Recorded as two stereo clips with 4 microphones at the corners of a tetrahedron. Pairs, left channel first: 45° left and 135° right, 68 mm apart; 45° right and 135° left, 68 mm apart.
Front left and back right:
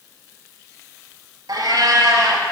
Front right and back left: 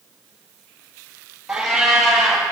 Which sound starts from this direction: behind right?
A cat meowing, at 1.5 s.